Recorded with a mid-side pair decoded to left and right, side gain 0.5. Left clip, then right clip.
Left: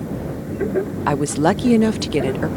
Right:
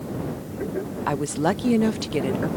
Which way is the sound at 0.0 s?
50° left.